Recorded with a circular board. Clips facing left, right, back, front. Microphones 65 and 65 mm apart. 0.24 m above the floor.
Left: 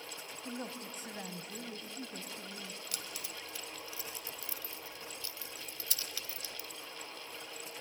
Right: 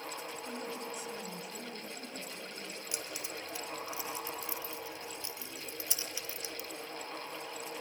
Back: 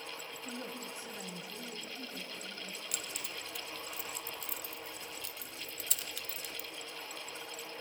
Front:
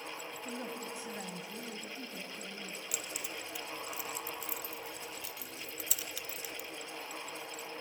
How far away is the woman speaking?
About 1.9 m.